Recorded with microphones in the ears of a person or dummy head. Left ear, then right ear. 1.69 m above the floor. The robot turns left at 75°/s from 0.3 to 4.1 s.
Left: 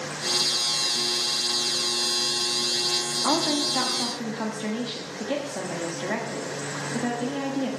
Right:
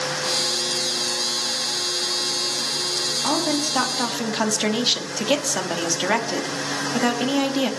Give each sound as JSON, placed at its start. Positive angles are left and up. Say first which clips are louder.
{"t": 3.2, "sound": "a woman speaking", "louder": "left 1 dB", "azimuth_deg": 10, "distance_m": 0.8}